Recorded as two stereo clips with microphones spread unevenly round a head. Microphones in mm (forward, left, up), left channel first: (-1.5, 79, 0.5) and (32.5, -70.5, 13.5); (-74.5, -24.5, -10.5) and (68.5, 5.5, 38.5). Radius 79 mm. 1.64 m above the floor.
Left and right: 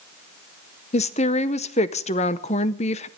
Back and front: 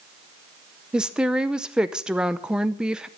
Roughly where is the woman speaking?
Left.